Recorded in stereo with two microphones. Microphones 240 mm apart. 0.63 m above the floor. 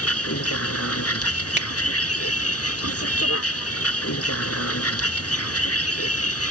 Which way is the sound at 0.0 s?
80° left.